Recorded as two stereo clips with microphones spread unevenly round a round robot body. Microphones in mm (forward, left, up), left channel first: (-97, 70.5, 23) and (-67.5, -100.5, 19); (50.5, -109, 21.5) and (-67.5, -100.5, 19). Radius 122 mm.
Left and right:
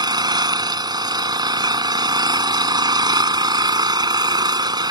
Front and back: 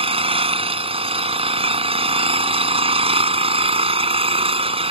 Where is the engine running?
145° right.